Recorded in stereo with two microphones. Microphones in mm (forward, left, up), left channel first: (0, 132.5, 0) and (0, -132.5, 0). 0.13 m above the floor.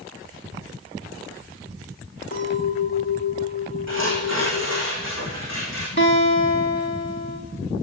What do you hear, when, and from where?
2.3 s a clink: 50° left (ahead or behind), 6.5 m
3.9 s tearing paper: 80° left, 9 m
6.0 s a guitar: 40° left (ahead or behind), 6.5 m